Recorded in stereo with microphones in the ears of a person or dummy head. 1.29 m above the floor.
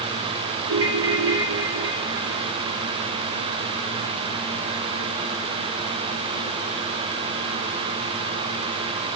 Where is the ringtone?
80° right, 2 m.